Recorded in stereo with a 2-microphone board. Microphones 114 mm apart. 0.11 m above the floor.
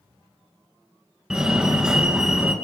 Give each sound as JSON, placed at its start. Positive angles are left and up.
{"t": 1.3, "sound": "a fire alarm", "side_deg": -5, "distance_m": 2.5}